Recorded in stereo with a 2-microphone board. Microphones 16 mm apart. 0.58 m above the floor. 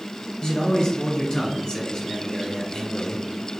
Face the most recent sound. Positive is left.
turn(degrees=65)  # may be behind; listen again after turning